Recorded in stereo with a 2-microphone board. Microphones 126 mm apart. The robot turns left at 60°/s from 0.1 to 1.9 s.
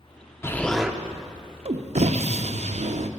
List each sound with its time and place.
0.4 s an explosion: 20° left, 0.5 m; by 3.1 s 65° right, 0.5 m